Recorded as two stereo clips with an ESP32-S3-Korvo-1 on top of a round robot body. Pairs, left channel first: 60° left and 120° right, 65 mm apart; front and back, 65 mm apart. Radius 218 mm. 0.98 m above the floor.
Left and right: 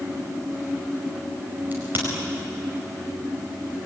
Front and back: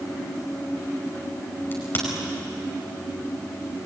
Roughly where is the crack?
Ahead right.